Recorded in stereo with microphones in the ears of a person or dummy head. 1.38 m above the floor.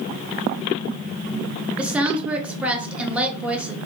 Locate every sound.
1.8 s a woman speaking: 10° right (ahead or behind), 0.5 m